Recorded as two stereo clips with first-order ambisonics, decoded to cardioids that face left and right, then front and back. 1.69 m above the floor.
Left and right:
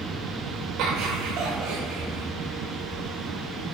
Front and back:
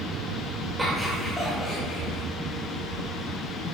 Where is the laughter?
100° right, 0.7 m; by 2.2 s 85° right, 2 m.